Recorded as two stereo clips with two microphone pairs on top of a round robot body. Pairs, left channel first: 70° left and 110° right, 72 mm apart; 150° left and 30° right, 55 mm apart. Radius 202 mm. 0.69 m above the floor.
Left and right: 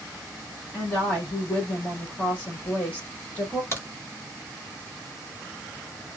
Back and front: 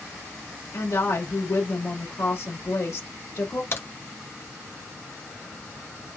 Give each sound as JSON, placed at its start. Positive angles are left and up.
{"t": 0.7, "sound": "a woman speaking", "azimuth_deg": 145, "distance_m": 2.0}
{"t": 3.7, "sound": "a crack", "azimuth_deg": 130, "distance_m": 1.5}